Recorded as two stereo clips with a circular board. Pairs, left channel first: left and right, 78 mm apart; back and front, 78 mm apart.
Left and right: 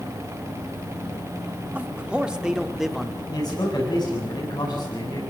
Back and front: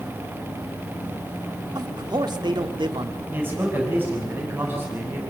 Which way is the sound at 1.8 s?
20° right.